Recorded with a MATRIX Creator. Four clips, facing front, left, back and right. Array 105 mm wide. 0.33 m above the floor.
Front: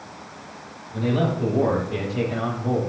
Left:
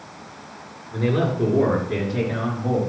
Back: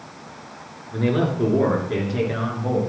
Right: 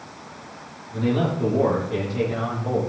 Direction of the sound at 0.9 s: 140° left.